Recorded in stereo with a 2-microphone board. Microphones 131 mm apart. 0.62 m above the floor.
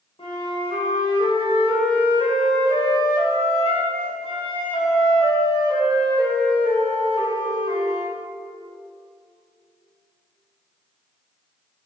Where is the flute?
45° left (ahead or behind), 2.5 m.